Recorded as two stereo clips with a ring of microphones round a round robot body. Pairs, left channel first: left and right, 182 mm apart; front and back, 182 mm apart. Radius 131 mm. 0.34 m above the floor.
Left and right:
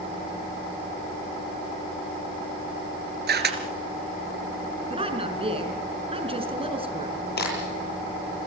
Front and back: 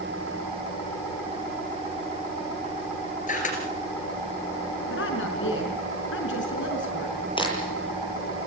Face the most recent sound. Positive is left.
turn(degrees=65)